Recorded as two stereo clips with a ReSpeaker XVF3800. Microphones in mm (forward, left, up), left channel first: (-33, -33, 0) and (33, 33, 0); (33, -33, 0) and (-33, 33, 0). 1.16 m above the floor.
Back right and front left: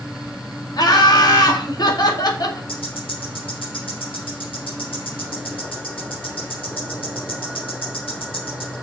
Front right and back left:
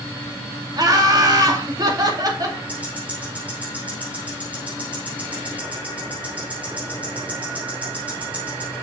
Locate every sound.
0.8 s laughter: straight behind, 2 m
2.7 s ticking: 150° right, 4 m